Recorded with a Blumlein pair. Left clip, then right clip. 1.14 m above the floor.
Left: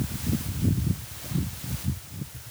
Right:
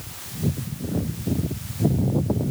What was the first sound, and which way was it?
Only background noise.